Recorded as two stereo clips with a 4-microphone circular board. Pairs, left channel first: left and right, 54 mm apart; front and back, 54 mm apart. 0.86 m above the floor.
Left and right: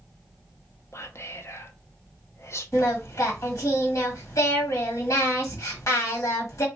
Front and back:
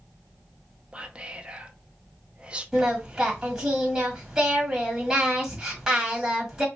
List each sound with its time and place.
0.9 s whispering: 110° left, 0.8 m
2.7 s singing: 100° left, 1.6 m